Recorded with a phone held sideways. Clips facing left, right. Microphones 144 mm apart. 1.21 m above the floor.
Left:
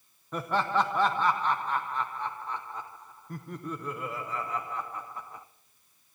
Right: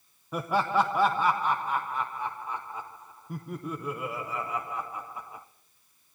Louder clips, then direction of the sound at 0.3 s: Right 2 dB; 10° right (ahead or behind).